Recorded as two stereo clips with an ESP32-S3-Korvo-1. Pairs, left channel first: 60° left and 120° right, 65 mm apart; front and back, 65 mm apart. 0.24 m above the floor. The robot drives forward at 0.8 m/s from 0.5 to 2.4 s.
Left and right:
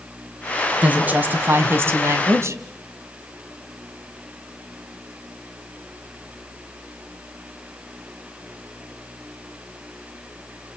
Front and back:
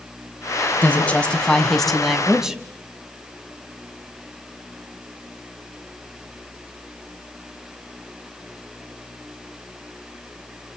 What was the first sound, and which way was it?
A woman speaking, 60° right.